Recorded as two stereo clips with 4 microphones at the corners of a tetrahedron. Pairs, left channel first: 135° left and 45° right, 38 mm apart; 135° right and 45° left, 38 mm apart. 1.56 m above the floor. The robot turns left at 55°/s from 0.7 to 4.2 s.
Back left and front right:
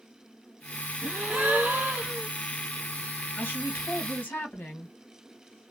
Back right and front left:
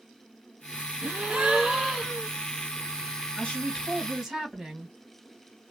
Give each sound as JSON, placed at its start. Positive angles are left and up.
{"t": 1.0, "sound": "a gasp", "azimuth_deg": 10, "distance_m": 0.6}
{"t": 3.4, "sound": "a woman speaking", "azimuth_deg": 170, "distance_m": 1.5}